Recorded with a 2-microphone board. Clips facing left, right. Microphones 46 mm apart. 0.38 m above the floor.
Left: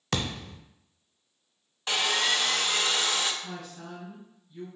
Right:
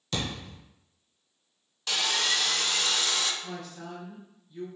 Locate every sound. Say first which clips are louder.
0.1 s a thud: left 2 dB; 85° left, 0.7 m
1.9 s sawing: left 2 dB; 25° left (ahead or behind), 0.5 m
3.4 s a woman speaking: right 1 dB; 5° right (ahead or behind), 2.0 m